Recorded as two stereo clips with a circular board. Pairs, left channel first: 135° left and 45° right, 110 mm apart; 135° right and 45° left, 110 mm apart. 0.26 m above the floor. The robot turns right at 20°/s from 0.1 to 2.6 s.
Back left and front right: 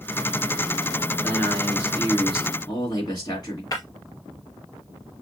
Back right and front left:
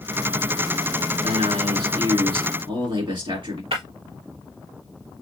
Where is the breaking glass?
80° left, 3.5 m.